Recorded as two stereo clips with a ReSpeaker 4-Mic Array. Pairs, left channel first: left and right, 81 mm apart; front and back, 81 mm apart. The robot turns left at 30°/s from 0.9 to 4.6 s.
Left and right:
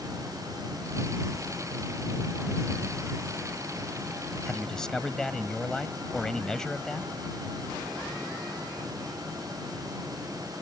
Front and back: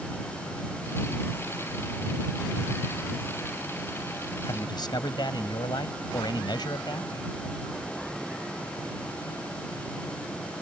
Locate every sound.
4.5 s a man speaking: 10° left; by 7.1 s 5° left